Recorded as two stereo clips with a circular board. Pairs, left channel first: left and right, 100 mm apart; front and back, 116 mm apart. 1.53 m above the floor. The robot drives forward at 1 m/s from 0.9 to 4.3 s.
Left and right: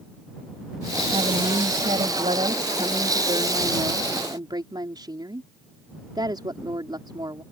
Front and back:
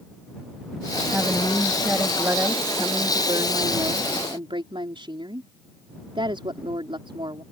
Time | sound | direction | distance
1.1 | a woman speaking | 90° right | ?